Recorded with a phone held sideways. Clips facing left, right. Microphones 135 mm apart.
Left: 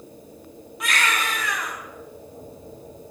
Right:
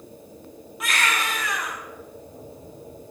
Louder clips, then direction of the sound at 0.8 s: Left 1 dB; centre (ahead or behind).